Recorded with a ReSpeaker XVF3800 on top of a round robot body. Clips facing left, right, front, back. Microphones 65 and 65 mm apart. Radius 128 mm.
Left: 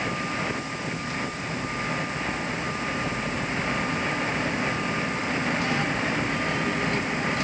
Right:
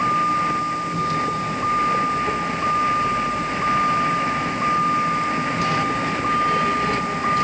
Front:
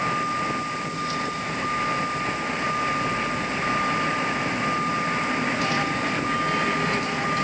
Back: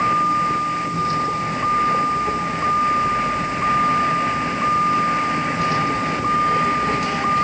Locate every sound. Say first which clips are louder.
0.0 s a vehicle: right 10 dB, back 7 dB; 125° right